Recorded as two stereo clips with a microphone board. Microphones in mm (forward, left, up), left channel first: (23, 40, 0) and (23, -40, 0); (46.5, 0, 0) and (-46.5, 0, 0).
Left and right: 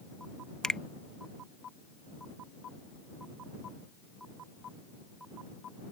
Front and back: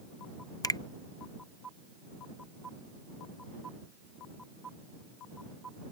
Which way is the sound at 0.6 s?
15° left.